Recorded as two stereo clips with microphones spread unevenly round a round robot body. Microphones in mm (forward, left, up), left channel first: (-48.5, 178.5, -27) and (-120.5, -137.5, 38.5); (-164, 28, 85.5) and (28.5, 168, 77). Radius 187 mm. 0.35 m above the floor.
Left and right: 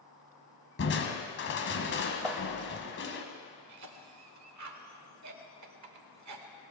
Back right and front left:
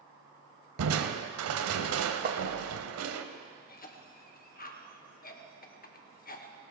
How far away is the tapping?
About 0.7 m.